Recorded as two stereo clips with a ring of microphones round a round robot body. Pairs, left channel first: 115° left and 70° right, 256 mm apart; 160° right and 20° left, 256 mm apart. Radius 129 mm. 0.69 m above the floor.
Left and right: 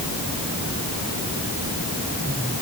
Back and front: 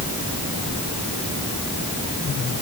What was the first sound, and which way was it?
Only background noise.